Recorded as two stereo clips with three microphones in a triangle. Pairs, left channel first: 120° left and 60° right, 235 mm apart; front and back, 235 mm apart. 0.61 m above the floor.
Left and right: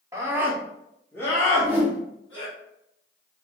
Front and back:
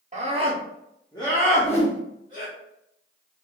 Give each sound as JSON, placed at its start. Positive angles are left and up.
{"t": 0.1, "sound": "a scream", "azimuth_deg": -135, "distance_m": 1.0}
{"t": 1.5, "sound": "a whoosh", "azimuth_deg": 15, "distance_m": 1.2}